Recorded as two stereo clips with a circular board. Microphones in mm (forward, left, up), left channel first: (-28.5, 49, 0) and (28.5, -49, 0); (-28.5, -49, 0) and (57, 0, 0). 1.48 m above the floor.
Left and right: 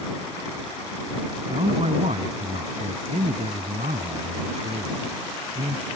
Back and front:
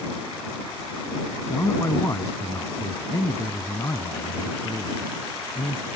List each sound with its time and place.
1.5 s a man speaking: 90° right; by 5.9 s 80° right